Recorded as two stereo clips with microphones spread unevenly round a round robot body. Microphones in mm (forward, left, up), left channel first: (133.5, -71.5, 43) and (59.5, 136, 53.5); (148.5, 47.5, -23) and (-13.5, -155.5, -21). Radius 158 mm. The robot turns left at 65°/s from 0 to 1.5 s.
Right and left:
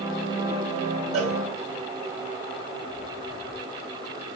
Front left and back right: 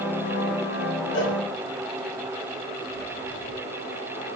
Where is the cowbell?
130° left, 2.5 m; by 1.4 s 115° left, 2.5 m.